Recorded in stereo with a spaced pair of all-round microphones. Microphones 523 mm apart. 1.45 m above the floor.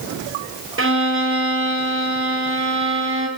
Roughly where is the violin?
Right.